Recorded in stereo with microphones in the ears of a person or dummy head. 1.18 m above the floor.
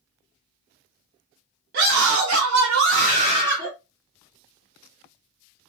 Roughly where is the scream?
Right.